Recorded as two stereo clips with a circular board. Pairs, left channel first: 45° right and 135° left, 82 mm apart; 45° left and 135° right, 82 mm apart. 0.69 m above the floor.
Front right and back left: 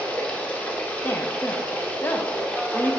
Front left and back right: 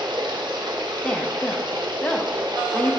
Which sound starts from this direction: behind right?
Running water, at 0.0 s.